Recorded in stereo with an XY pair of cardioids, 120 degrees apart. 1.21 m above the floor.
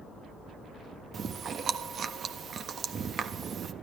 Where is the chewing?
45° right, 1.4 m.